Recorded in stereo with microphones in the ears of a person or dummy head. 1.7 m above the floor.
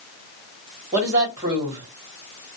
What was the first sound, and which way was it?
A woman speaking, 30° right (ahead or behind).